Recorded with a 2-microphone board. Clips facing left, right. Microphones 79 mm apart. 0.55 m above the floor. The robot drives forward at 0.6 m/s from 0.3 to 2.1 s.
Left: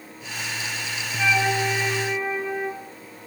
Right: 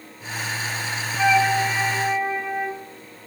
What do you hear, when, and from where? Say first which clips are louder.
1.2 s a flute: right 4 dB; 70° right (ahead or behind), 3.5 m; by 2.8 s 75° right (ahead or behind), 3.5 m